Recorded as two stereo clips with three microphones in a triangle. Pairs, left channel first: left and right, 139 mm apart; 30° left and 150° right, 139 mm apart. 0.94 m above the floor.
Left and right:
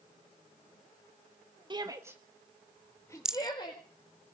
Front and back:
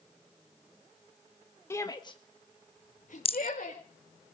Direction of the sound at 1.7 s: 40° right.